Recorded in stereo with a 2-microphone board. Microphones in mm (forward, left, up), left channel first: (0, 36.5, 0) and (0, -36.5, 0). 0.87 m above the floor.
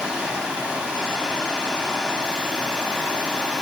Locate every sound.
0.0 s running water: 10° right (ahead or behind), 0.7 m